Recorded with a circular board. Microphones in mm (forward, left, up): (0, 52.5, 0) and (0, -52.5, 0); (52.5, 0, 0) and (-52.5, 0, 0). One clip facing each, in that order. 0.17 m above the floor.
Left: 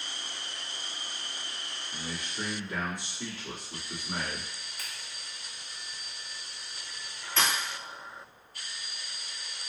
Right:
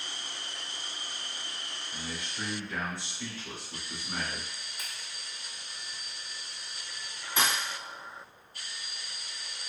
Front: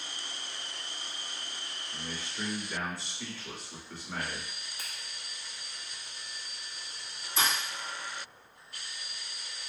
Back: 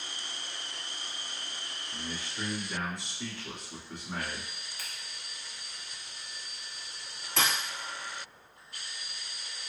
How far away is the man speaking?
About 1.8 m.